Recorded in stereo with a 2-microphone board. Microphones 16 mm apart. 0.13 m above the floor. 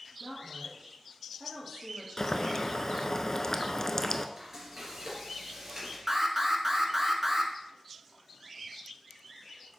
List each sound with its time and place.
0.2 s a woman speaking: 15° right (ahead or behind), 2.5 m
2.2 s boiling: 40° left (ahead or behind), 0.5 m
4.4 s frying: 30° right (ahead or behind), 3 m
6.1 s an alarm: 25° right (ahead or behind), 1.0 m